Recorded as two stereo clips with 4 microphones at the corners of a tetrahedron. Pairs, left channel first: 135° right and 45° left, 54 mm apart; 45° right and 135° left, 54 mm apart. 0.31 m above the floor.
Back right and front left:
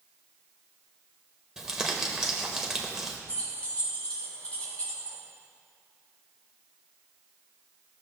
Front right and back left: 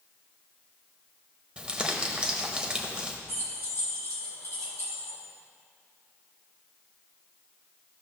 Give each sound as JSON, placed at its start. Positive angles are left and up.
{"t": 1.6, "sound": "crumpling", "azimuth_deg": 105, "distance_m": 1.0}
{"t": 3.3, "sound": "keys jangling", "azimuth_deg": -70, "distance_m": 3.0}